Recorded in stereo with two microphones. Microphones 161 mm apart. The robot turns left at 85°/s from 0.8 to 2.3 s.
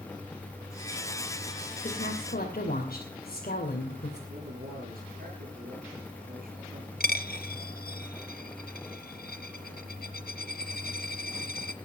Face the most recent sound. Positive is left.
turn(degrees=70)  # may be behind; listen again after turning